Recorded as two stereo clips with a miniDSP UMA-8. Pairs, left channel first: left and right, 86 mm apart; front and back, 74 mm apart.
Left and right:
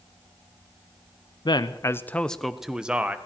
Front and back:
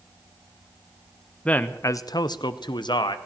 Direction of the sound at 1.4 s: 70° left.